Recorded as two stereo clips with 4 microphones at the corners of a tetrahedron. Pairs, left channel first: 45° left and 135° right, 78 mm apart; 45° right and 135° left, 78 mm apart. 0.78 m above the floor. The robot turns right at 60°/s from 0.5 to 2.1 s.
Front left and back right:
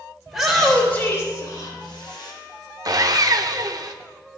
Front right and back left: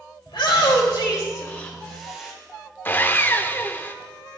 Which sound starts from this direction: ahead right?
A shout, at 0.3 s.